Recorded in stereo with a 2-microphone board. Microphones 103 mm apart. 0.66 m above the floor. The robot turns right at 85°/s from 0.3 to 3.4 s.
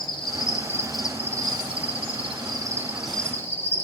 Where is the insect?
125° left, 1.1 m; by 3.8 s 25° left, 1.1 m.